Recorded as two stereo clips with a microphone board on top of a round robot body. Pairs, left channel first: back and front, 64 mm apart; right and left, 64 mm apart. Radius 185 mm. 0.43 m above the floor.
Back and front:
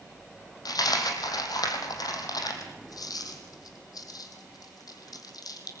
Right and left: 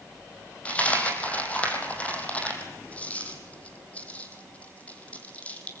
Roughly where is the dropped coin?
Behind.